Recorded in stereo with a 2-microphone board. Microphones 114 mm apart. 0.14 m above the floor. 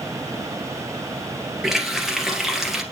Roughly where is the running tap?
Centre.